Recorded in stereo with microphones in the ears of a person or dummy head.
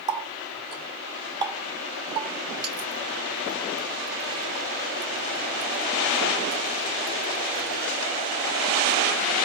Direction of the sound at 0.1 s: 25° right (ahead or behind).